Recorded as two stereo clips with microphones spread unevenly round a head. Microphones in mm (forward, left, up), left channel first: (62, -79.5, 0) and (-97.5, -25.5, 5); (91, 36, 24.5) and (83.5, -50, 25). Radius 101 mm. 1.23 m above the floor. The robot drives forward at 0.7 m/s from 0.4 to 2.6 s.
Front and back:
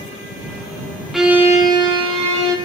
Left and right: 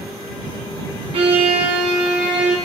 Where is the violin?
110° right, 0.8 m; by 2.5 s 150° right, 1.5 m.